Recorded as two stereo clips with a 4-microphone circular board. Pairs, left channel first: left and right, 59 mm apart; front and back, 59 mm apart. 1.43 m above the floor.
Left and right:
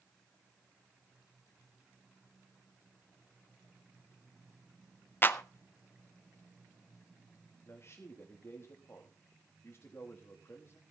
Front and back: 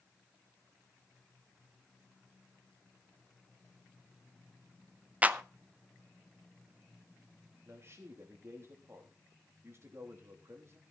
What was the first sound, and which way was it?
A clap, 125° left.